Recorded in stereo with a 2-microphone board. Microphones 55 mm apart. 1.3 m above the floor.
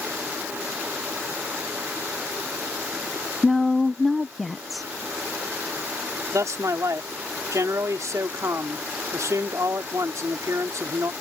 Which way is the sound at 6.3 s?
75° right (ahead or behind).